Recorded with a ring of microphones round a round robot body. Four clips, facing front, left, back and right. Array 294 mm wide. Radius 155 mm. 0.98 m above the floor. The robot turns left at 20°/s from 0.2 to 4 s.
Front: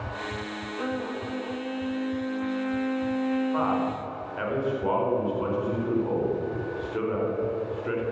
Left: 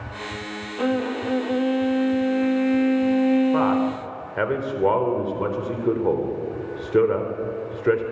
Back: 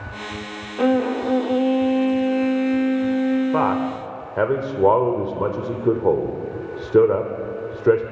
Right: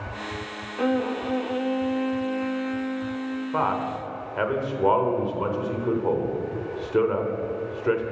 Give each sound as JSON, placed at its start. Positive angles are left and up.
{"t": 0.8, "sound": "a violin", "azimuth_deg": 175, "distance_m": 0.8}
{"t": 3.5, "sound": "a man speaking", "azimuth_deg": 170, "distance_m": 4.0}